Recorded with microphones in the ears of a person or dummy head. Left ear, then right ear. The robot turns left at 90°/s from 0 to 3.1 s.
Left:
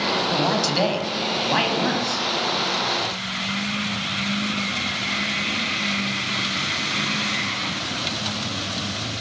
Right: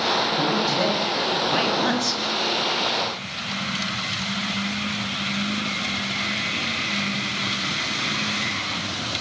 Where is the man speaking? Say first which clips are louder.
Left 1 dB; 125° left, 9.5 m; by 2.2 s 50° right, 9.5 m.